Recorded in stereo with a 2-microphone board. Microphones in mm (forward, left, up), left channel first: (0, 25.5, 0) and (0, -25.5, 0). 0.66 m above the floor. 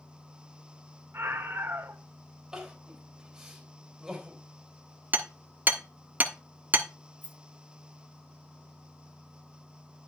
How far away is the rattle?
About 1.2 m.